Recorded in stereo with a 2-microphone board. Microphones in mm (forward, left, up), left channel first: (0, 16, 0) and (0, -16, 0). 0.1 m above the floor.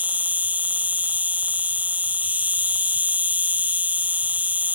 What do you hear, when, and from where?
0.0 s an insect: 60° right (ahead or behind)